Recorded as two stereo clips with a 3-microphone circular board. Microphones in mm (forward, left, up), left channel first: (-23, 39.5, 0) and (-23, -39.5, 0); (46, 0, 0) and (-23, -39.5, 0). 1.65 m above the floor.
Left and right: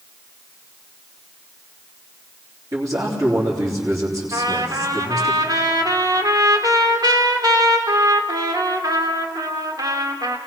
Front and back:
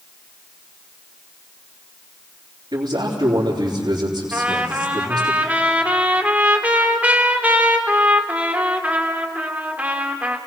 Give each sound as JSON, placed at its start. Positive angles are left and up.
{"t": 2.7, "sound": "a man speaking", "azimuth_deg": -135, "distance_m": 3.5}
{"t": 4.3, "sound": "a trumpet", "azimuth_deg": -85, "distance_m": 1.8}